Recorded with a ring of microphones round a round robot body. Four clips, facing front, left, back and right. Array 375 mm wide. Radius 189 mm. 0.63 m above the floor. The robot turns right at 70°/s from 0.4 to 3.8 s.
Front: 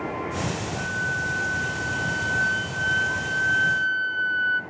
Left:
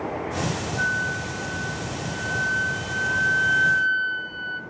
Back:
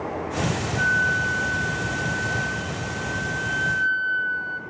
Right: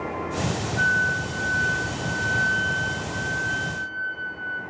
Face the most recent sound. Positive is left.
turn(degrees=60)